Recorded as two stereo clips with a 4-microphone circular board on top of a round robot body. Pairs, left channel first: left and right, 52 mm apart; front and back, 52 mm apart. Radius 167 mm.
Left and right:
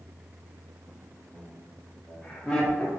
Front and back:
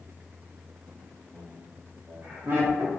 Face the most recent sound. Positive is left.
turn(degrees=155)